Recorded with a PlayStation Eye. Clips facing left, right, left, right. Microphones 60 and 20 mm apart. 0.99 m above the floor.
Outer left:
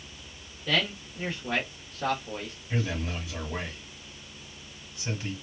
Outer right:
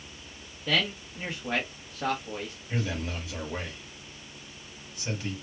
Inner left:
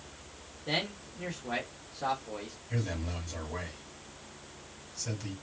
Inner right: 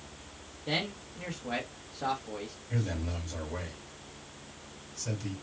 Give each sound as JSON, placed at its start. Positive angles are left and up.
{"t": 0.7, "sound": "a man speaking", "side_deg": -10, "distance_m": 1.3}
{"t": 2.7, "sound": "a man speaking", "side_deg": -5, "distance_m": 2.0}